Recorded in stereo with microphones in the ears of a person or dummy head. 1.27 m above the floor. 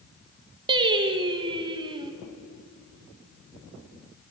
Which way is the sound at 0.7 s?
25° right (ahead or behind).